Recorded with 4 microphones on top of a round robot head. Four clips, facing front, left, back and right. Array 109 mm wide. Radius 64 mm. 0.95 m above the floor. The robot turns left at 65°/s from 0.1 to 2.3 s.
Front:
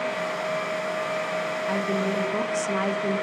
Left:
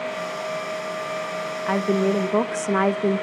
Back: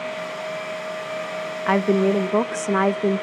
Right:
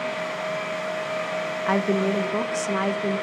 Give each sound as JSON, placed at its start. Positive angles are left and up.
{"t": 1.7, "sound": "a woman speaking", "azimuth_deg": -175, "distance_m": 0.8}